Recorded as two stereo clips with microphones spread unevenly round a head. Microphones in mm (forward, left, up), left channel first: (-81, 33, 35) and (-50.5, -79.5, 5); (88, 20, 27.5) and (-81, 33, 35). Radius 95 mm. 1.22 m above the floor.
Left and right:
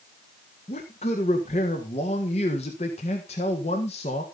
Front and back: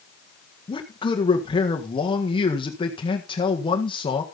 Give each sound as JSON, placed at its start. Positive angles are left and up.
{"t": 0.7, "sound": "a man speaking", "azimuth_deg": 50, "distance_m": 1.6}